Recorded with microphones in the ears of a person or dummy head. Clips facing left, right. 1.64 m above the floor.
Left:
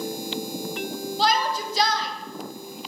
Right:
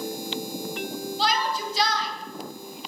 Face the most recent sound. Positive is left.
turn(degrees=45)  # may be behind; listen again after turning